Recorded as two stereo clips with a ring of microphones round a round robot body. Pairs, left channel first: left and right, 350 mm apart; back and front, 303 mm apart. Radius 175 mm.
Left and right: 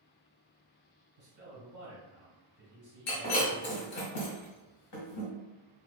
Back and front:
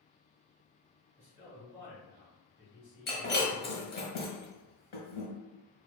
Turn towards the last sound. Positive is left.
turn(degrees=130)